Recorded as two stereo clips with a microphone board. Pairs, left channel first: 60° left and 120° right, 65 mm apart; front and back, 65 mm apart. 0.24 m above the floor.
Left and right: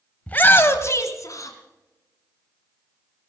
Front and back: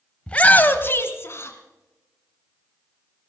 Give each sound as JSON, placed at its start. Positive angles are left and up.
{"t": 0.3, "sound": "a shout", "azimuth_deg": 40, "distance_m": 1.0}